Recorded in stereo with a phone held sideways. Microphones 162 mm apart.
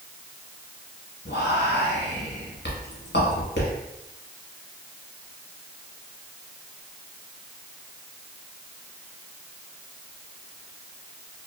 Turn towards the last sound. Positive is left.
turn(degrees=85)